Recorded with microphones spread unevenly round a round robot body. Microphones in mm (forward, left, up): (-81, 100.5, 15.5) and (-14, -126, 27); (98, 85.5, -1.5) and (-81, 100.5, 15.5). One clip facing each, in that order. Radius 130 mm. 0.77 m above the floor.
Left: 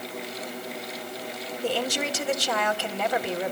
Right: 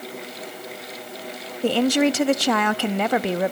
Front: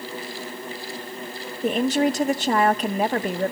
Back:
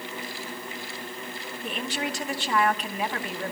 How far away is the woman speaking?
About 0.9 m.